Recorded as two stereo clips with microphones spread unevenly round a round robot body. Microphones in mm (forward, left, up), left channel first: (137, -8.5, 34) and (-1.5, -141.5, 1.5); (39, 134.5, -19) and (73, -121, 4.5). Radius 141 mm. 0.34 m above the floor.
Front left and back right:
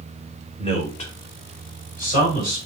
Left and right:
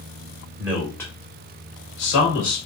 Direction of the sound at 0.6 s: 5° right.